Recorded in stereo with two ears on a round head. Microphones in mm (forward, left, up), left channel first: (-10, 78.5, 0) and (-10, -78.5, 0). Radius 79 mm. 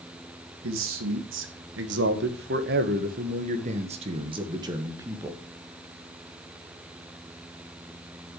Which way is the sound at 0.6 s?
85° right.